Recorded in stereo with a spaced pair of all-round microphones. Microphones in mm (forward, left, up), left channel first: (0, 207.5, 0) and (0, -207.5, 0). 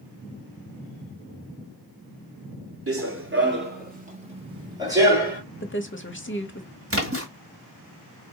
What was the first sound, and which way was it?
Running footsteps, 35° right (ahead or behind).